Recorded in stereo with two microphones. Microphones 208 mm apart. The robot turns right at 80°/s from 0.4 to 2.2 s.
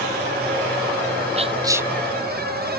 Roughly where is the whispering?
Ahead right.